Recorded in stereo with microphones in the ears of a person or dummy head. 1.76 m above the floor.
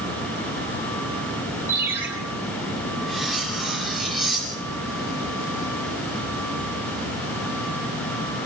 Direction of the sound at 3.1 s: 5° right (ahead or behind).